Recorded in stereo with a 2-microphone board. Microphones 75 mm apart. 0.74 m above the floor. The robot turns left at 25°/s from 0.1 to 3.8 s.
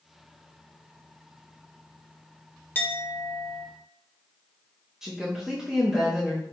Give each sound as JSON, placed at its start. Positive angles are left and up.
{"t": 2.8, "sound": "a clink", "side_deg": 25, "distance_m": 0.5}
{"t": 5.0, "sound": "a woman speaking", "side_deg": -5, "distance_m": 0.6}